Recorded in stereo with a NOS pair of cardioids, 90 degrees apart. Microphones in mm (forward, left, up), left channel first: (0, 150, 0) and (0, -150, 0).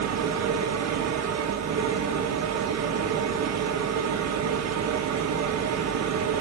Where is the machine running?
60° right, 1.7 m.